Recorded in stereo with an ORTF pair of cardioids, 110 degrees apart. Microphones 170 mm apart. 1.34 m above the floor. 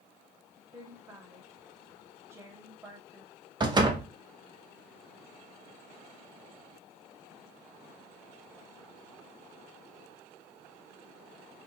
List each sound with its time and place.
0.7 s a woman speaking: 15° right, 1.7 m
3.6 s a door slam: 25° right, 1.0 m